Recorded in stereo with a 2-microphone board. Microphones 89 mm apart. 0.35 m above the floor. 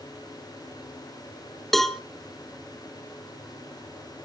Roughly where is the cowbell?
Centre.